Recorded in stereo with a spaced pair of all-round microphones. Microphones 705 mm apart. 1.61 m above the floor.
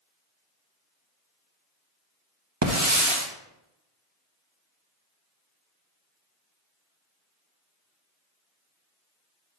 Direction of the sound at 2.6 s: 25° right (ahead or behind).